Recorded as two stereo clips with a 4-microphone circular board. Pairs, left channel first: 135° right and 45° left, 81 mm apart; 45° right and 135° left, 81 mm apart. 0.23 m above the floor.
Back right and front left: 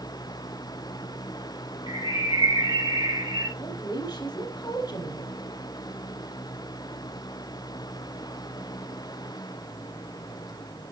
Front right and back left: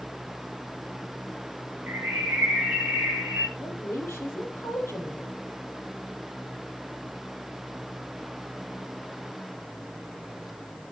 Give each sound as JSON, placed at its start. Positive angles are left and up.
{"t": 1.9, "sound": "a bird", "azimuth_deg": 65, "distance_m": 4.0}
{"t": 3.6, "sound": "a woman speaking", "azimuth_deg": -105, "distance_m": 7.0}